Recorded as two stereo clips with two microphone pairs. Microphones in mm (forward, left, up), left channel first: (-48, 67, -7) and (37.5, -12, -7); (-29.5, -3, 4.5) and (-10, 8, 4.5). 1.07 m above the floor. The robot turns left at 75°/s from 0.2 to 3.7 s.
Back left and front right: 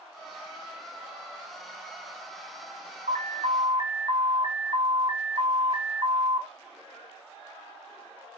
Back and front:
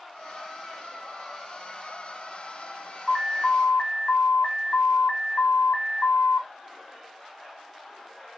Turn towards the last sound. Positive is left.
turn(degrees=-100)